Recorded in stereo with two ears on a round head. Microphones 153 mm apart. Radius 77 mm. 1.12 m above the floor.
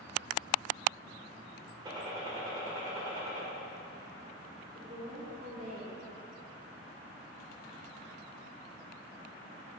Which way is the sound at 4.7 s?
50° right (ahead or behind).